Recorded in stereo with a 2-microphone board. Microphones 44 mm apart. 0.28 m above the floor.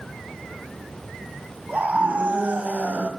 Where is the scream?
35° right (ahead or behind), 1.7 m.